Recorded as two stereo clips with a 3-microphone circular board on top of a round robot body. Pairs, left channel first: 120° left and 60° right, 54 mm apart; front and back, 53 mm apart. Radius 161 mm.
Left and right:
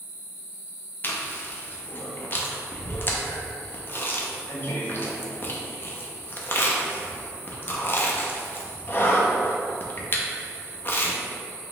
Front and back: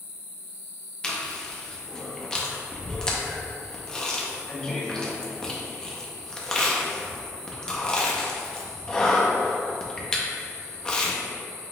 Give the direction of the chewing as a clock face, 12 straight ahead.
10 o'clock.